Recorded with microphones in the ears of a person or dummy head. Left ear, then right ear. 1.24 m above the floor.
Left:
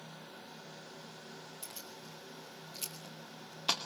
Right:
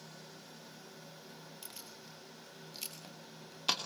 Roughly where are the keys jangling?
Centre.